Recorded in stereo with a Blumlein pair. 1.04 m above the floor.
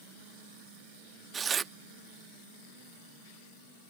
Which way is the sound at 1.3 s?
20° right.